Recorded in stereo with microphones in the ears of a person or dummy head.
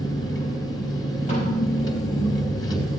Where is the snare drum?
35° left (ahead or behind), 7.5 m.